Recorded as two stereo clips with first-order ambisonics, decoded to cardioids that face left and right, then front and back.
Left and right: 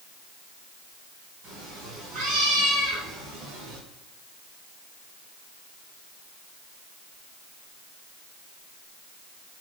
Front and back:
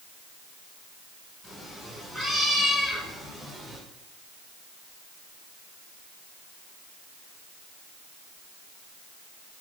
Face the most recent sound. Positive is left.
turn(degrees=-100)